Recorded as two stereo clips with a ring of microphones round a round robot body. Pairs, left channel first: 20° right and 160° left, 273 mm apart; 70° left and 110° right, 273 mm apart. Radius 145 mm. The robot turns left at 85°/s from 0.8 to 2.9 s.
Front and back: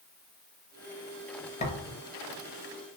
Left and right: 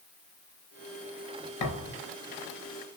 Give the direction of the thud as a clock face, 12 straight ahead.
10 o'clock.